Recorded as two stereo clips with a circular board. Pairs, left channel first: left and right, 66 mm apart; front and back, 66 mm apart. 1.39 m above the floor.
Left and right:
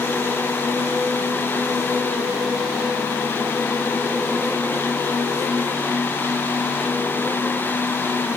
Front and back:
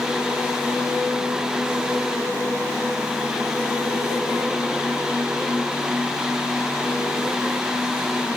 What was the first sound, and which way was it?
Only background noise.